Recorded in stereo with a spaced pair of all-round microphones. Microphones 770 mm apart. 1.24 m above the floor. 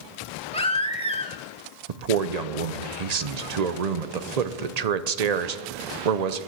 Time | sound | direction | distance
0.5 | a baby crying | 10° left (ahead or behind) | 1.2 m
1.9 | a man speaking | 55° right (ahead or behind) | 0.8 m